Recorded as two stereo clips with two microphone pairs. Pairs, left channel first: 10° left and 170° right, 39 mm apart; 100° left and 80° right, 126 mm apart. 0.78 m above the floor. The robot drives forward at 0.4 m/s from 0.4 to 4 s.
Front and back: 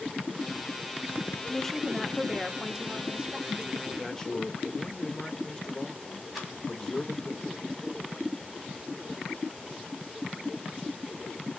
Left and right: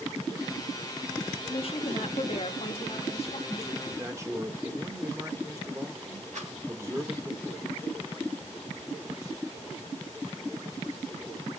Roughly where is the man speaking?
Ahead right.